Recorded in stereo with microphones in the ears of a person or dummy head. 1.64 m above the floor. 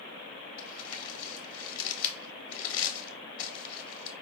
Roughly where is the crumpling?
Left.